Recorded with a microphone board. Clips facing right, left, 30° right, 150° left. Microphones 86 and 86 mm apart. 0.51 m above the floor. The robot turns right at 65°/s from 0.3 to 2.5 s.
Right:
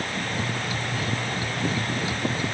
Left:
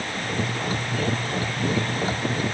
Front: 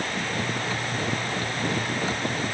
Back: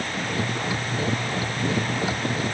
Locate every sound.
Only background noise.